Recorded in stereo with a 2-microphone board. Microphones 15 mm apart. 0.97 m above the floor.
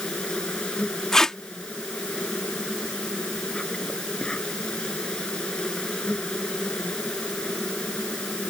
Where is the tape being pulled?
35° left (ahead or behind).